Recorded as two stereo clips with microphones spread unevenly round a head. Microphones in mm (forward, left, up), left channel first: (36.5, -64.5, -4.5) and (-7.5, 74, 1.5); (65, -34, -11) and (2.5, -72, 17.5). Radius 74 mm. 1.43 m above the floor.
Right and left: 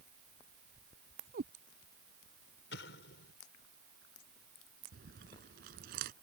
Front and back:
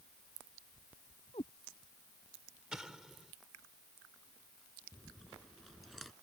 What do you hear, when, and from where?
1.3 s a cat meowing: 85° left
2.7 s an explosion: 70° right
4.9 s chewing: 130° left